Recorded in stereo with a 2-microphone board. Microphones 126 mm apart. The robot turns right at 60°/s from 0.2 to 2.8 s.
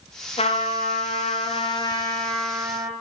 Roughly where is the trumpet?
Ahead left.